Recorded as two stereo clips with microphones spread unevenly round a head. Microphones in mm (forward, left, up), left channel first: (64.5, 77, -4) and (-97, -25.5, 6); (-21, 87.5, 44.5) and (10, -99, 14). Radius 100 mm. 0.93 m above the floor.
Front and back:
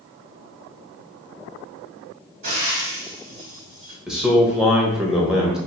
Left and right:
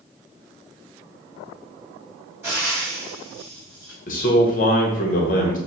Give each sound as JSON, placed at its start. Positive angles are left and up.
{"t": 2.4, "sound": "frying", "azimuth_deg": -155, "distance_m": 2.5}
{"t": 4.1, "sound": "a man speaking", "azimuth_deg": 125, "distance_m": 1.1}